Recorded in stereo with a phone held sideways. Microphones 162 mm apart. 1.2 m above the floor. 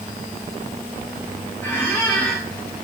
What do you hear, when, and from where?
1.6 s a squeak: 15° left (ahead or behind), 2.5 m